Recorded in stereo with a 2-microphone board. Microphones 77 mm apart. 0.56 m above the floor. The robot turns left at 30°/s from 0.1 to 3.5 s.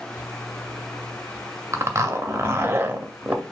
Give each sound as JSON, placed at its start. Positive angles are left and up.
{"t": 1.7, "sound": "a zipper", "azimuth_deg": -100, "distance_m": 0.7}